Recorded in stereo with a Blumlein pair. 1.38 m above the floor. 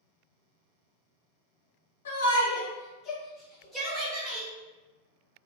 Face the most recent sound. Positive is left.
turn(degrees=-20)